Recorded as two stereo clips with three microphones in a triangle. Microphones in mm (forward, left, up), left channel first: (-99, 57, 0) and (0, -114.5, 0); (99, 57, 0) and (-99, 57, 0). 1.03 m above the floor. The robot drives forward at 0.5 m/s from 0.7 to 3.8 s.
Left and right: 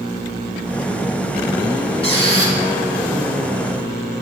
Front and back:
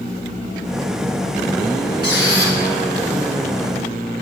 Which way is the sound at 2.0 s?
175° left.